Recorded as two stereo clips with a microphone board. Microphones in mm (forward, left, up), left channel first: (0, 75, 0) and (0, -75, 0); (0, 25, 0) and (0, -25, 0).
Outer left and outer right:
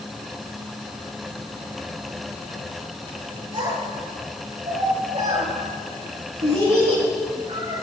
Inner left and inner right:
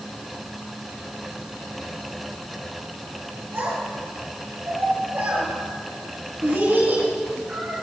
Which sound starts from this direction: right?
A child speaking, at 3.5 s.